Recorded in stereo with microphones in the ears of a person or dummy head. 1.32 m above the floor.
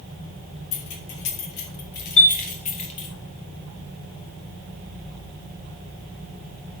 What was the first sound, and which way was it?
Keys jangling, 80° left.